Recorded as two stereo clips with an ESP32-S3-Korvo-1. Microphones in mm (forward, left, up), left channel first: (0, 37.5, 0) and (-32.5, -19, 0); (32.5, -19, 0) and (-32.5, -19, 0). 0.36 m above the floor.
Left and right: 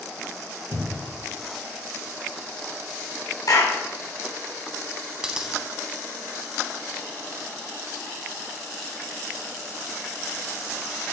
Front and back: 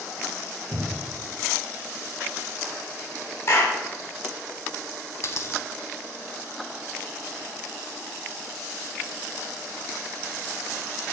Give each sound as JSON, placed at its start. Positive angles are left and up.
{"t": 0.7, "sound": "a cupboard door", "azimuth_deg": 180, "distance_m": 1.1}
{"t": 3.5, "sound": "a clap", "azimuth_deg": 40, "distance_m": 2.0}
{"t": 5.2, "sound": "a dropped coin", "azimuth_deg": -40, "distance_m": 0.5}